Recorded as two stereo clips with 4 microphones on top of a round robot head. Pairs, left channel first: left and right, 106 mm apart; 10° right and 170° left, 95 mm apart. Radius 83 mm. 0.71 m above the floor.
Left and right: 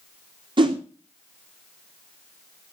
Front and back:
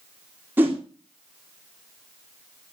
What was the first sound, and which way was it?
A whoosh, 120° right.